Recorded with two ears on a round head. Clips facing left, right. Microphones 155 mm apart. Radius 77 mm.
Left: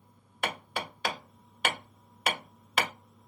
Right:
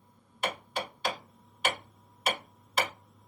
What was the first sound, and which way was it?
Hammering, 60° left (ahead or behind).